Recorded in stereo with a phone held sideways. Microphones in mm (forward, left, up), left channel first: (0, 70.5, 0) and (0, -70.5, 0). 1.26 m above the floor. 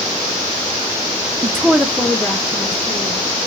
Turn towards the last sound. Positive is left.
turn(degrees=20)  # may be behind; listen again after turning